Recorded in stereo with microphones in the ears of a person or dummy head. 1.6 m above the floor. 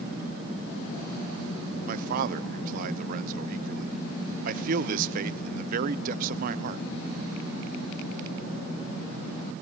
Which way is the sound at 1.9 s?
50° right (ahead or behind).